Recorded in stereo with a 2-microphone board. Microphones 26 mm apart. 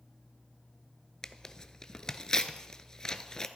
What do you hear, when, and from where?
1.2 s tearing paper: 25° left (ahead or behind), 0.6 m